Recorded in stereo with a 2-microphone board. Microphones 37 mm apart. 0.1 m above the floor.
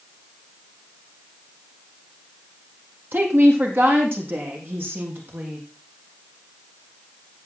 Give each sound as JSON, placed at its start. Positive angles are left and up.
{"t": 3.1, "sound": "a woman speaking", "side_deg": -70, "distance_m": 4.5}